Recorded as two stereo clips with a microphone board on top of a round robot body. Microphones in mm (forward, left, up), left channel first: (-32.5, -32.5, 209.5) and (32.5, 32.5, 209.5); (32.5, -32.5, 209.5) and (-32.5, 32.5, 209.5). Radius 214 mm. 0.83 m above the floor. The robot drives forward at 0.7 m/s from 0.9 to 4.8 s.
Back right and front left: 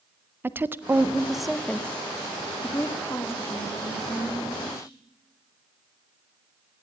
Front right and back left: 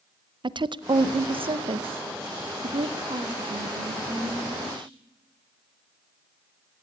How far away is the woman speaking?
About 0.8 m.